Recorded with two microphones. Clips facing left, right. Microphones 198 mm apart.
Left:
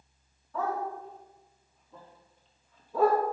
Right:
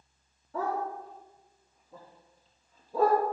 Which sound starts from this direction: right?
A dog barking, at 0.5 s.